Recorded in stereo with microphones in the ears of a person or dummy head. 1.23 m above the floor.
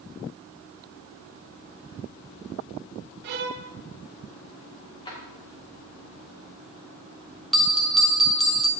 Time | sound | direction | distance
3.2 | a violin | 55° right (ahead or behind) | 0.6 m
5.0 | a drawer | 25° left (ahead or behind) | 2 m
7.5 | a bell | centre (ahead or behind) | 0.6 m